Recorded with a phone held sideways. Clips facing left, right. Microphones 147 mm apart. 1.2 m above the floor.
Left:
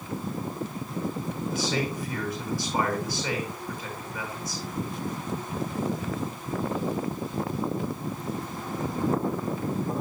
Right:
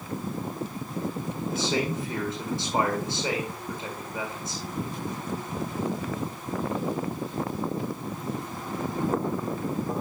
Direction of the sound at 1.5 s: 25° right (ahead or behind).